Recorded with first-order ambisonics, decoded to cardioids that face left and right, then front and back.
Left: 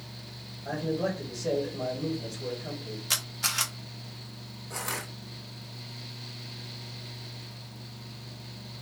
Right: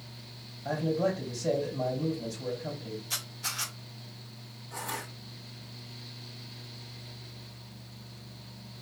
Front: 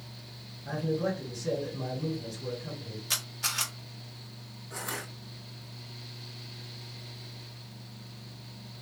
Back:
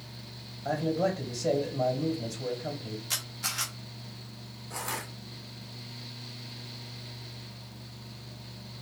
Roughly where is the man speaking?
Behind.